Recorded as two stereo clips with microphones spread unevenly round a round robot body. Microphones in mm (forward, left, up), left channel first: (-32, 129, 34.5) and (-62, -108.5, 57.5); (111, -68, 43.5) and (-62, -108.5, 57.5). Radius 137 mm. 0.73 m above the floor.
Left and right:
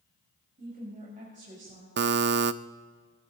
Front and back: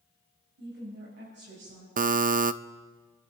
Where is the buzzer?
135° right, 0.6 m.